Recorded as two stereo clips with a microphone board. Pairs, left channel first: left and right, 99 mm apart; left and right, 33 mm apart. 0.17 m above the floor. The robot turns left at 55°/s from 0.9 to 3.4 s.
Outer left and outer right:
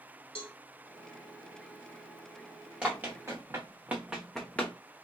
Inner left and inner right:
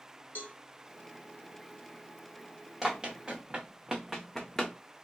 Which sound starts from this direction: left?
A cowbell, at 0.3 s.